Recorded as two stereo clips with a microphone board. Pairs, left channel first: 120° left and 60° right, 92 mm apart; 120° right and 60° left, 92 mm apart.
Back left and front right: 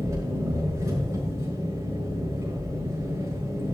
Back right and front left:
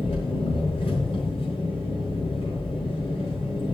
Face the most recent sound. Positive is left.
turn(degrees=-115)